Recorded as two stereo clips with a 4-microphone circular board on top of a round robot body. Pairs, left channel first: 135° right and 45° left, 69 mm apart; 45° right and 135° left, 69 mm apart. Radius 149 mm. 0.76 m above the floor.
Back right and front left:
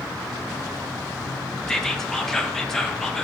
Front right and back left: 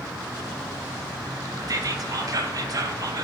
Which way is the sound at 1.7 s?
140° left.